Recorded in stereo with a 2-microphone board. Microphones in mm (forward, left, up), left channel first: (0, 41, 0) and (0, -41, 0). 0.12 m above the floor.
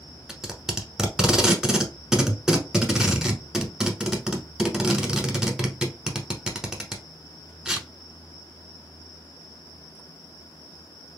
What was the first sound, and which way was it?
Tape being pulled, 5° right (ahead or behind).